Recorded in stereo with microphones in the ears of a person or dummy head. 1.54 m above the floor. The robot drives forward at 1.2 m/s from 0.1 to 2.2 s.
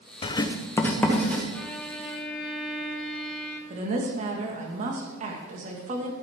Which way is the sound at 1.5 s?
10° left (ahead or behind).